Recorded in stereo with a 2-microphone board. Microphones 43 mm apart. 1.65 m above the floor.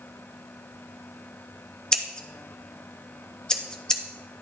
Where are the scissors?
20° left (ahead or behind), 0.8 m.